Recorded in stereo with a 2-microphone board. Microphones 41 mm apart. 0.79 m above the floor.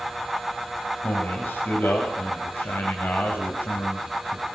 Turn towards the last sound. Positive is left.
turn(degrees=55)  # may be behind; listen again after turning